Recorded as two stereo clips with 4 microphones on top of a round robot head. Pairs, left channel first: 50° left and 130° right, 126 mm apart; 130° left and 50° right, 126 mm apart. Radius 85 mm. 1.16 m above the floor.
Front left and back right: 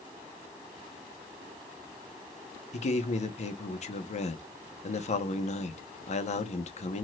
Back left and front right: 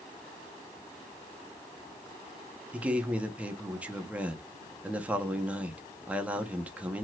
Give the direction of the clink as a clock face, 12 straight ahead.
No clink in this recording.